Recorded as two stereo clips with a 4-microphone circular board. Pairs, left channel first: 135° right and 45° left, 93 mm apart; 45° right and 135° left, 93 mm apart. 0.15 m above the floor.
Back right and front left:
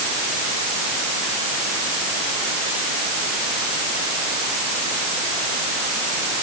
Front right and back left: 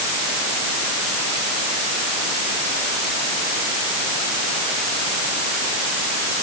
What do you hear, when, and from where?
Only background noise.